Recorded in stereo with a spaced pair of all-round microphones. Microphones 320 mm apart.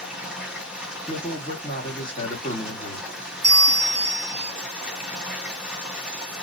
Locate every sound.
0.0 s running water: 5° right (ahead or behind), 1.3 m
1.1 s a man speaking: 15° left (ahead or behind), 1.9 m
3.4 s a bell: 45° right (ahead or behind), 0.9 m